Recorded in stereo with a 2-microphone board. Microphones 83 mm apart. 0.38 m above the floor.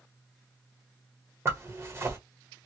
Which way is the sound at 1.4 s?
30° right (ahead or behind).